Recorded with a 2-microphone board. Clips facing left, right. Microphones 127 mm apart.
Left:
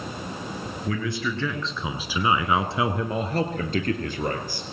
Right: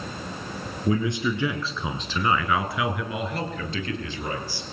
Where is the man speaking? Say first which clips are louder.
Right 5 dB; 25° right (ahead or behind), 1.8 m; by 4.6 s 50° left (ahead or behind), 3 m.